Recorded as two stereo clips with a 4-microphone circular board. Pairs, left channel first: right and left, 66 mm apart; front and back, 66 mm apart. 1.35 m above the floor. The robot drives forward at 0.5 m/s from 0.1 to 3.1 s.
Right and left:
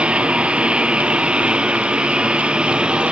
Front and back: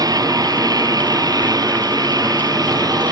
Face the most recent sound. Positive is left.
turn(degrees=165)